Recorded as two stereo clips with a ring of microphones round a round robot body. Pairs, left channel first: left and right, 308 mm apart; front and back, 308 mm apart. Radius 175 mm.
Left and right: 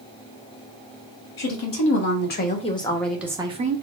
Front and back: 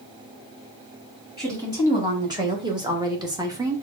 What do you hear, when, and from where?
1.4 s a woman speaking: 105° left, 1.6 m; by 3.8 s 110° right, 1.1 m